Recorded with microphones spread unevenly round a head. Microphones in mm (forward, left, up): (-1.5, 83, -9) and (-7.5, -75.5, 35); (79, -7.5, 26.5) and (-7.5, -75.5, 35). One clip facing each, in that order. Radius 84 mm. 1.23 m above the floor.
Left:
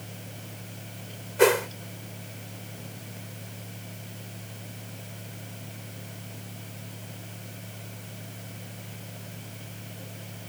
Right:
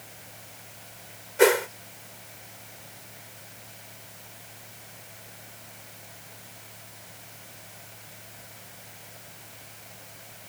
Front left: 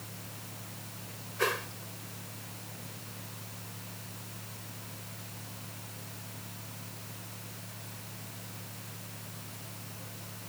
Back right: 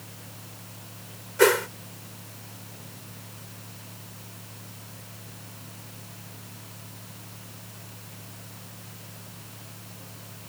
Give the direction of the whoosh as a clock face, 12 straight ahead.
6 o'clock.